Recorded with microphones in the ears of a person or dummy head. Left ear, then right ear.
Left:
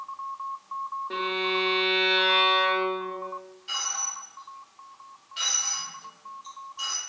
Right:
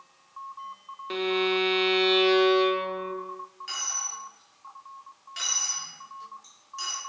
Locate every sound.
1.1 s a violin: 60° right (ahead or behind), 0.5 m
3.7 s a dropped coin: 50° right (ahead or behind), 1.5 m